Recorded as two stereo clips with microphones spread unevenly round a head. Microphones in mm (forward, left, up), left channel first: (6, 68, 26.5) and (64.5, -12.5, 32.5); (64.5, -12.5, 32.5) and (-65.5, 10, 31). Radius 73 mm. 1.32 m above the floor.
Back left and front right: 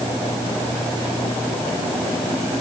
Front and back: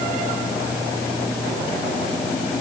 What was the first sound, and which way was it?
Only background noise.